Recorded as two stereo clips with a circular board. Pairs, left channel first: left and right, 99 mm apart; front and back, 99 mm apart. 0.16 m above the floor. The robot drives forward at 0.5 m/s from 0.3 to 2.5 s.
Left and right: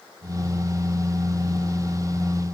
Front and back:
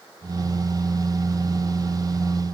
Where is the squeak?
I don't hear a squeak.